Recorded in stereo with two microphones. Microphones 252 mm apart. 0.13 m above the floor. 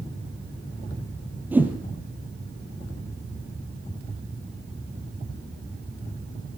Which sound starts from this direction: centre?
A whoosh, at 1.5 s.